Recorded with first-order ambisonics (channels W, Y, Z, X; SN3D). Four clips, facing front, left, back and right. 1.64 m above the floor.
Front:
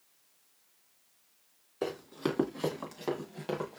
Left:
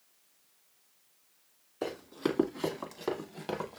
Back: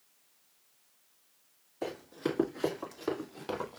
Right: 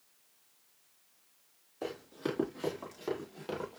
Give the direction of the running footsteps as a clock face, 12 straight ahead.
11 o'clock.